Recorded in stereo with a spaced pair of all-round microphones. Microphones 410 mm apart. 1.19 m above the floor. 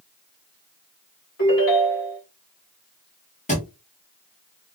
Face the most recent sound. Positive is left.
turn(degrees=15)  # may be behind; listen again after turning